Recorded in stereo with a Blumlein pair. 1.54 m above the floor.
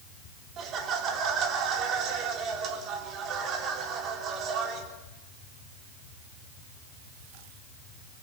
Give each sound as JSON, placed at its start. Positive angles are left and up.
{"t": 0.6, "sound": "laughter", "azimuth_deg": -30, "distance_m": 3.5}